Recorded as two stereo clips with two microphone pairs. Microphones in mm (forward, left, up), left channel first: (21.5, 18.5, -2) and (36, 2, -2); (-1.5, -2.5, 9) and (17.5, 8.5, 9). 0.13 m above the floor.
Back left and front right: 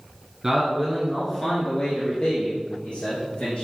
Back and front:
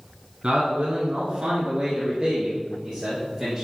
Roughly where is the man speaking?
Ahead.